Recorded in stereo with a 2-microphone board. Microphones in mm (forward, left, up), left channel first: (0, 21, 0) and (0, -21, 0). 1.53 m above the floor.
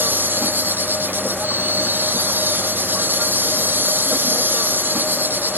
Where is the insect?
50° right (ahead or behind).